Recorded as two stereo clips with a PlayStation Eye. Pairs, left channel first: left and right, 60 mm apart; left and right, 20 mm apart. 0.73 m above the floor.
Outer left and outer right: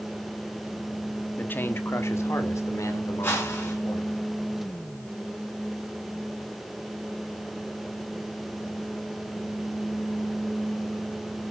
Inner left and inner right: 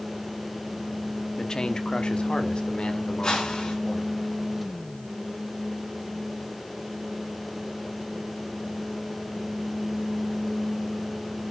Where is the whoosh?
40° left (ahead or behind), 5 m.